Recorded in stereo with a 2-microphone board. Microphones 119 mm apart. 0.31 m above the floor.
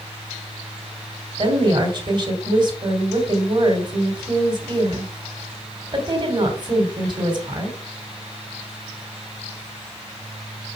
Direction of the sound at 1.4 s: 35° right (ahead or behind).